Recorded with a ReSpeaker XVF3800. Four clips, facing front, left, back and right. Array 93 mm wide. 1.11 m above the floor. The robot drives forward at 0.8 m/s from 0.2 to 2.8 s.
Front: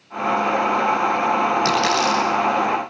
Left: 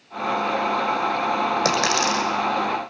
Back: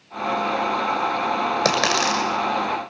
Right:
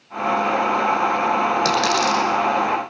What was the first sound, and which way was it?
A dropped coin, 170° left.